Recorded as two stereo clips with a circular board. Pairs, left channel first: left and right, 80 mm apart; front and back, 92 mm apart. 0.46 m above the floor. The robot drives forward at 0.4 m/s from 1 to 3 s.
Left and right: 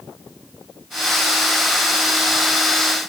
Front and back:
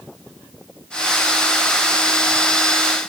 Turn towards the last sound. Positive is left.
No sound to turn to.